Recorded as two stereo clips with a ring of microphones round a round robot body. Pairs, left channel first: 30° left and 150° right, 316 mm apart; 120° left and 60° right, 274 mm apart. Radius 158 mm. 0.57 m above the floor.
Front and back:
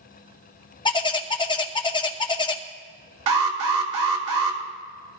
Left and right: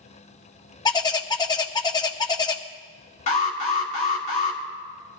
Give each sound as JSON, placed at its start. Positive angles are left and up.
{"t": 0.8, "sound": "a bird", "azimuth_deg": 75, "distance_m": 0.8}
{"t": 3.3, "sound": "an alarm", "azimuth_deg": -175, "distance_m": 2.0}